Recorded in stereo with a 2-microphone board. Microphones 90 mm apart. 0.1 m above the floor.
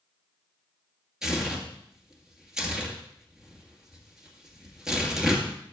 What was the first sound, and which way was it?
Tearing paper, 5° right (ahead or behind).